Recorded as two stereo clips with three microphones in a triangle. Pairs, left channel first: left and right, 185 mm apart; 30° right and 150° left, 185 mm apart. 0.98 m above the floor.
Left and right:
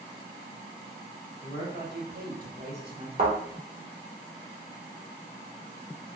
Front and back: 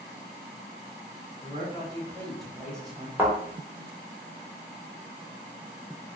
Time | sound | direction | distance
1.4 | a man speaking | 90° right | 2 m
3.2 | a thud | 130° right | 1.4 m